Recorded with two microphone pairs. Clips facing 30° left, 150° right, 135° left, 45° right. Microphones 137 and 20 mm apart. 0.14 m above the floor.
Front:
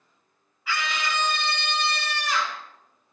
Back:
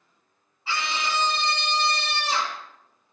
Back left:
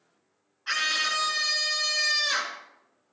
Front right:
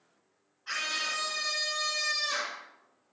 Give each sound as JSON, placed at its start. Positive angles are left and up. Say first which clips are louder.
{"t": 0.7, "sound": "a scream", "louder": "back 1 dB, back left 6 dB", "azimuth_deg": 165, "distance_m": 2.0}